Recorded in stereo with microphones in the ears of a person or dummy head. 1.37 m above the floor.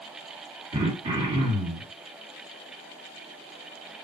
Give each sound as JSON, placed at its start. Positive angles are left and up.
{"t": 0.7, "sound": "throat clearing", "side_deg": -25, "distance_m": 1.6}